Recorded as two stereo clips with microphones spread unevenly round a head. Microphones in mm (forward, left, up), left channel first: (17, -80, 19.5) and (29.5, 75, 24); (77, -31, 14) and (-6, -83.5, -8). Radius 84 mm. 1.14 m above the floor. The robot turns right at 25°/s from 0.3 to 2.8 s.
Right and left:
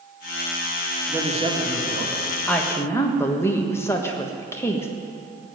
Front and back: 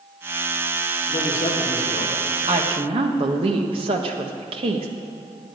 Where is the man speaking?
20° left, 3 m; by 2.2 s 45° left, 3 m.